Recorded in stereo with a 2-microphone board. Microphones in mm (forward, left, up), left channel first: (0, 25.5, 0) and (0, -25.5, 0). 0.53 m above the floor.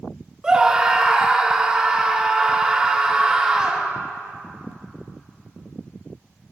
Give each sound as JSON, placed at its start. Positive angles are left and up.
{"t": 0.4, "sound": "a scream", "side_deg": -15, "distance_m": 1.0}